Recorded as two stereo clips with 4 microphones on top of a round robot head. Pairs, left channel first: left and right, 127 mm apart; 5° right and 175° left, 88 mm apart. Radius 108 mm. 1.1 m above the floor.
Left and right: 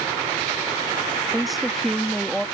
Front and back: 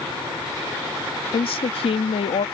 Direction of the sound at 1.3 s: Straight ahead.